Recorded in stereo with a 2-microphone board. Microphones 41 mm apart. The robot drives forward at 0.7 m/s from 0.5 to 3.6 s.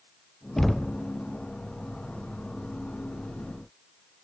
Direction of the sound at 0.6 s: 10° left (ahead or behind).